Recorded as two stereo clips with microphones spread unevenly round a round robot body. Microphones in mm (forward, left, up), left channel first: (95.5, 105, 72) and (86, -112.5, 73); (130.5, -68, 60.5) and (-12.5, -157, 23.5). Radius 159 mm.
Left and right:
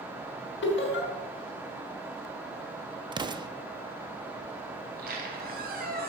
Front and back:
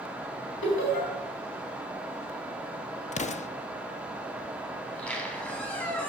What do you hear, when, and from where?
0.6 s laughter: 60° left, 3.5 m
3.1 s an explosion: 20° right, 0.7 m
4.8 s a squeak: 45° right, 2.5 m